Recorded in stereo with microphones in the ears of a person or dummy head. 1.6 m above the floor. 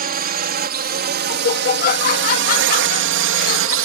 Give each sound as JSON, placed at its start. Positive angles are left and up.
{"t": 0.0, "sound": "a drone", "side_deg": -45}
{"t": 1.3, "sound": "laughter", "side_deg": 50}